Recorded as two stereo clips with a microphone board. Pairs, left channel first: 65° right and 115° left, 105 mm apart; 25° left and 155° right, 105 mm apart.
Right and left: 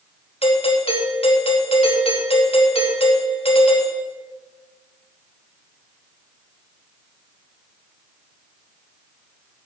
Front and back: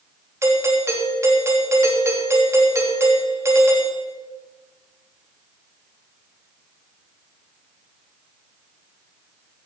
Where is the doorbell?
95° right, 3 m.